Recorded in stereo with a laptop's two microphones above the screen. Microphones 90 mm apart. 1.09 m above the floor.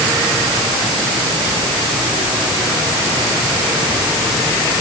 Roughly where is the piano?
I don't hear a piano.